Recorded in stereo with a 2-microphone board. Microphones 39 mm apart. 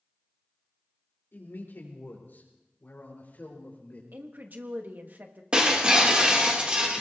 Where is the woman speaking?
50° right (ahead or behind), 1.4 m.